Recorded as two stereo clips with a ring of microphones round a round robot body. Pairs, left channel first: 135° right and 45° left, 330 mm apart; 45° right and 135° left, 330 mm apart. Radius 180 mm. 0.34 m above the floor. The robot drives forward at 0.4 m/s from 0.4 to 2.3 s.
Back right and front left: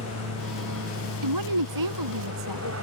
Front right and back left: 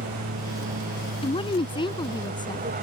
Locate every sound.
0.0 s an aircraft: 75° left
1.2 s a woman speaking: 30° left